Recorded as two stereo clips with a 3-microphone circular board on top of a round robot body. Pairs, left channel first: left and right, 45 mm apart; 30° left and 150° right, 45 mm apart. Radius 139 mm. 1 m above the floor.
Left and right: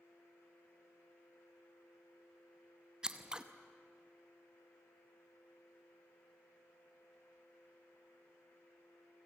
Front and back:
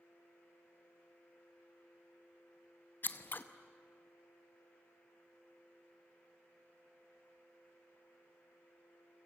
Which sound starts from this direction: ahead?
Scissors, at 3.0 s.